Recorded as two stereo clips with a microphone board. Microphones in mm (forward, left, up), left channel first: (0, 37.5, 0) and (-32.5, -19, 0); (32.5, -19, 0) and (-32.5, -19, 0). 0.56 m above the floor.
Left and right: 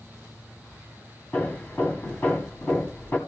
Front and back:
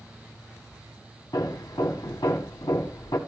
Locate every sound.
1.3 s hammering: 5° right, 3 m